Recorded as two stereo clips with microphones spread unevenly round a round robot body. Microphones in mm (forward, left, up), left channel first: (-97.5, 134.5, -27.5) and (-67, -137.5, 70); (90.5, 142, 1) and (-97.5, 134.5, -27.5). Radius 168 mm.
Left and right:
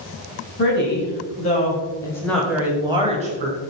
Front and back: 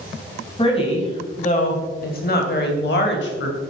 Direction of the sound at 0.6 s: 65° left.